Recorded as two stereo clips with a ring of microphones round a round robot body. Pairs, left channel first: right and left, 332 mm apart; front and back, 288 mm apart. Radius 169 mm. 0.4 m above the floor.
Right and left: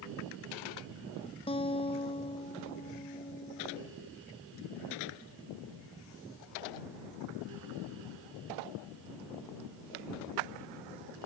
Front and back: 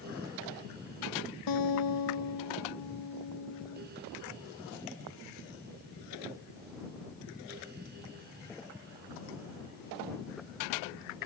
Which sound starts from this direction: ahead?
A guitar, at 1.5 s.